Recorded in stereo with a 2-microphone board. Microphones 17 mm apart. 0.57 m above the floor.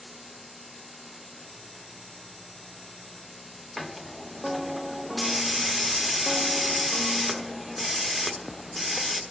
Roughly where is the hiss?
Centre.